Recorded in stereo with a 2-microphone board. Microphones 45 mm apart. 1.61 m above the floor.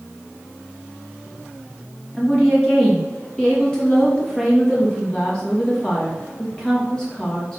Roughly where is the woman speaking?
Centre.